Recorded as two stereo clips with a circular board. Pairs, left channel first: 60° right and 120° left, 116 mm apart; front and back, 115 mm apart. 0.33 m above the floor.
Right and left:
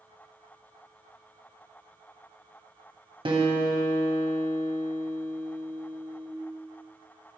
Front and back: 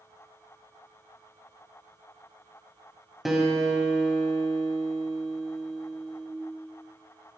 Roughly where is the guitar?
Left.